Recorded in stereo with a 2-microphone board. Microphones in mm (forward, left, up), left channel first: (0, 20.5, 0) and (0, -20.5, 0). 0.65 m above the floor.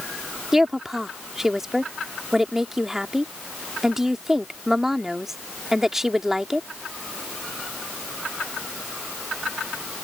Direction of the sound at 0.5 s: 10° right (ahead or behind).